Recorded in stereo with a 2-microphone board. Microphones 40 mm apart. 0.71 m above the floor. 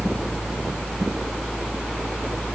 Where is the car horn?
I don't hear a car horn.